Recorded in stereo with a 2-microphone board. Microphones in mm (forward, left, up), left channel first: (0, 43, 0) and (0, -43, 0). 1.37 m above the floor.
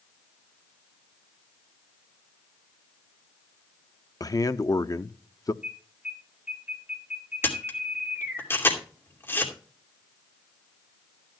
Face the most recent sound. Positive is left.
turn(degrees=25)  # may be behind; listen again after turning